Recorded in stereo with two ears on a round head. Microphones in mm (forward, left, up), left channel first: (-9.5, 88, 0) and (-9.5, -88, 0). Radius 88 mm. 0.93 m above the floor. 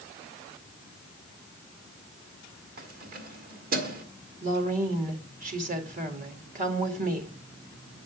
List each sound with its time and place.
2.8 s keys jangling: 45° right (ahead or behind), 1.4 m
4.4 s a woman speaking: 45° right (ahead or behind), 2 m